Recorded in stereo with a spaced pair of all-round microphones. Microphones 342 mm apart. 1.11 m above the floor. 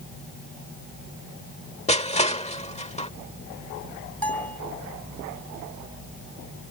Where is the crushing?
20° left (ahead or behind).